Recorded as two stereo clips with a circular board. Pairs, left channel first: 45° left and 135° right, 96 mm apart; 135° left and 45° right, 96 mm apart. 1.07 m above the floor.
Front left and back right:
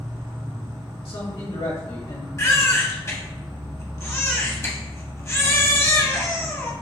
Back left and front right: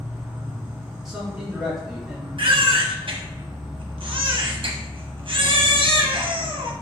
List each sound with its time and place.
0.0 s an insect: 95° right, 1.2 m
1.1 s a man speaking: 40° left, 1.9 m
2.4 s a baby crying: 15° right, 0.7 m